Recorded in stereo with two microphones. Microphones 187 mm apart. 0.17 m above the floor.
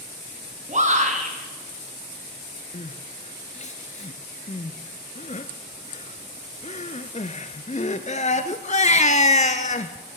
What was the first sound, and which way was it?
A shout, 40° right (ahead or behind).